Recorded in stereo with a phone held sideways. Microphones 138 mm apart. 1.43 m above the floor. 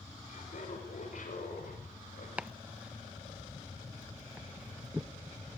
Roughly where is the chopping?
Centre.